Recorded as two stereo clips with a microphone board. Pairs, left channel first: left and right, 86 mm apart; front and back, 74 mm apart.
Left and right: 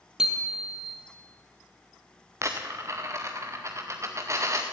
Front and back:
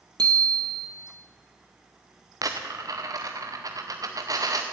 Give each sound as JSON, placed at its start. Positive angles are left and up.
{"t": 0.2, "sound": "a bicycle bell", "azimuth_deg": -170, "distance_m": 2.5}
{"t": 2.4, "sound": "a dropped coin", "azimuth_deg": -145, "distance_m": 1.6}